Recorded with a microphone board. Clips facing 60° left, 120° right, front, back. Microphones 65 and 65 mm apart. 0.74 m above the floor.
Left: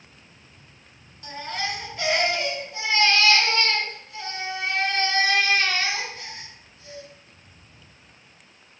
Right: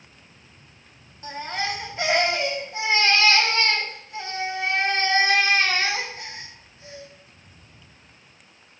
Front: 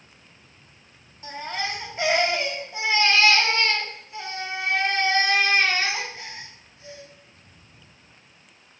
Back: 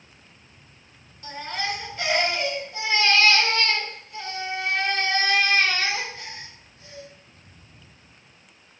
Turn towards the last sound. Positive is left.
turn(degrees=-60)